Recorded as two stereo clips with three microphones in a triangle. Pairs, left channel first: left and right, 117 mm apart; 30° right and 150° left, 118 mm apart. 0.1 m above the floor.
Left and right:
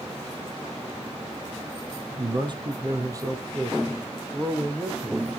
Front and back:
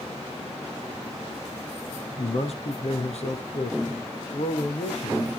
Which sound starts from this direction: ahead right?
A man speaking, at 2.2 s.